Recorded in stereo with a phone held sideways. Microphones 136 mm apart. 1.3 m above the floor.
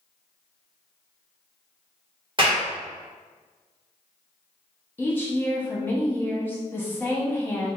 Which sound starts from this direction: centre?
A woman speaking, at 5.0 s.